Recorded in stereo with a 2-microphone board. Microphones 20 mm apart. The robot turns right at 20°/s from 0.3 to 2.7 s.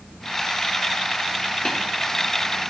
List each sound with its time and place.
1.6 s tapping: 60° left (ahead or behind), 4 m